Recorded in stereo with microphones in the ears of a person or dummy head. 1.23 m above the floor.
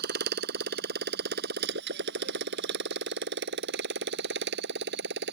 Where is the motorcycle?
60° right (ahead or behind); by 5.3 s 65° right (ahead or behind).